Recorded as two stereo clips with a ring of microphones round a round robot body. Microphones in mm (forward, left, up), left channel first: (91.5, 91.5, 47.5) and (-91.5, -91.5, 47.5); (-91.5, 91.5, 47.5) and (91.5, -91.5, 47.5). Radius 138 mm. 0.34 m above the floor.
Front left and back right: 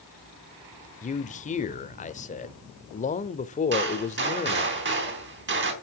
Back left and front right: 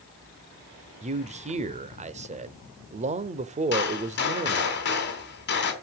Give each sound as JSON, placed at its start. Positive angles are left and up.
{"t": 1.0, "sound": "a man speaking", "azimuth_deg": 0, "distance_m": 1.0}
{"t": 3.7, "sound": "a gunshot", "azimuth_deg": 180, "distance_m": 3.5}